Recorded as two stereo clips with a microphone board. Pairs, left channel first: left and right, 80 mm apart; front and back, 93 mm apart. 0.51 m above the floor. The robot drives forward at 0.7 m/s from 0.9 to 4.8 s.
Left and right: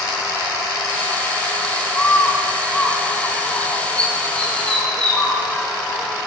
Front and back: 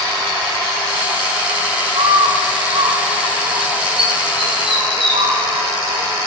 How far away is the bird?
About 4.5 m.